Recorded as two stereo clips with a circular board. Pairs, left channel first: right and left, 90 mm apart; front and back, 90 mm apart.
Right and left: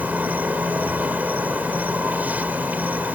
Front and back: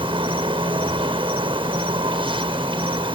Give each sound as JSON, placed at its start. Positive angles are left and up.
{"t": 0.0, "sound": "an insect", "azimuth_deg": 165}